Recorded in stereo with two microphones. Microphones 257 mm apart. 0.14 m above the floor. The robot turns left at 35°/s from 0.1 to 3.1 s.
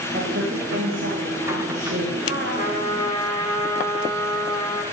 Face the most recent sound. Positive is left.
turn(degrees=15)  # may be behind; listen again after turning